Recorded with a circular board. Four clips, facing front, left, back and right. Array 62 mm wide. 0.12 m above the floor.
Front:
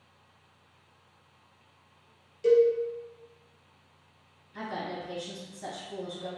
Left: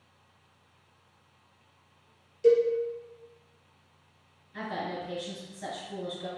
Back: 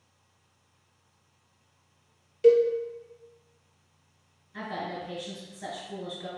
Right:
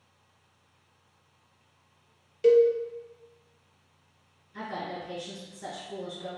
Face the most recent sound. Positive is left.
turn(degrees=145)